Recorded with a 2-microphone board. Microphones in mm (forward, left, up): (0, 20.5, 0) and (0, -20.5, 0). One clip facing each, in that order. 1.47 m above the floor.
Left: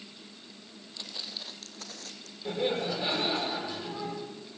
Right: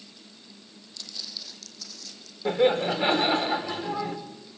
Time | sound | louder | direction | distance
1.0 | footsteps | even | 25° left (ahead or behind) | 2.0 m
2.5 | laughter | right 8 dB | 45° right (ahead or behind) | 6 m